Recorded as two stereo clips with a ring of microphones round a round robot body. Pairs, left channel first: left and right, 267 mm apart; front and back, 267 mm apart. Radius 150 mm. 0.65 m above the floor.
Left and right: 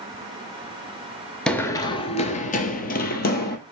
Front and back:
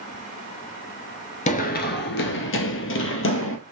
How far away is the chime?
No chime in this recording.